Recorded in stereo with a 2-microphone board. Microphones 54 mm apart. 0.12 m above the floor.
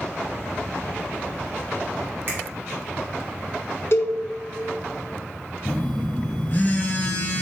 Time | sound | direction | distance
2.3 | a finger snap | 50° right (ahead or behind) | 1.9 m
3.9 | a cowbell | 55° left (ahead or behind) | 0.6 m
5.7 | a phone buzzing | 35° left (ahead or behind) | 1.4 m